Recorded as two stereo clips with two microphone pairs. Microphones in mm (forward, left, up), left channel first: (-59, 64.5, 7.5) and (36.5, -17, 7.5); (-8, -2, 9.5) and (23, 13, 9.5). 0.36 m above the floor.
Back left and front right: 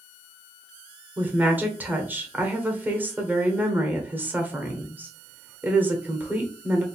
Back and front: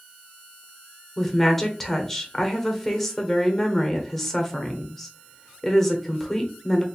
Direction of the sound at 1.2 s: 90° right.